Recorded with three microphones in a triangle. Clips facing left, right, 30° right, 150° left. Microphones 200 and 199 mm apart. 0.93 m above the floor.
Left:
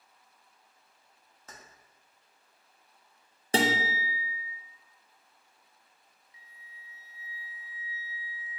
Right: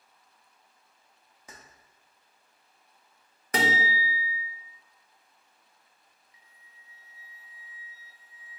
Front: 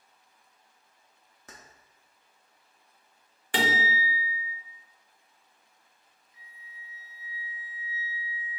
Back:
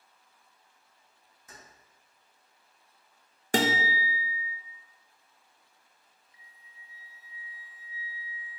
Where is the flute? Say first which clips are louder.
Left 7 dB, front 6 dB; 40° right, 0.6 m.